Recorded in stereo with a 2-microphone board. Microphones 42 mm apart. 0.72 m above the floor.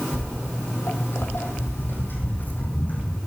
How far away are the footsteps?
About 1.7 m.